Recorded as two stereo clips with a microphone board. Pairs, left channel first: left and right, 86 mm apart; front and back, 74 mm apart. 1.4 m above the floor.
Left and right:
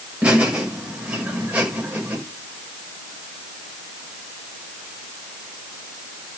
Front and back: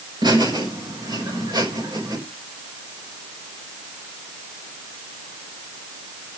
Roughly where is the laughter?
Behind.